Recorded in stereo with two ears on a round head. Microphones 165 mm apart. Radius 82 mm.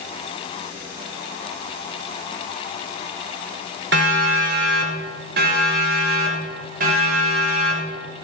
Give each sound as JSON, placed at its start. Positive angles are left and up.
{"t": 3.9, "sound": "a siren", "side_deg": -70, "distance_m": 4.0}